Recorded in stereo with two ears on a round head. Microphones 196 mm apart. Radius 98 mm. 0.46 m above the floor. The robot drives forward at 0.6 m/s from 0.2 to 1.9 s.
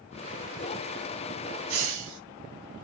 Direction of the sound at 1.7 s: 70° right (ahead or behind).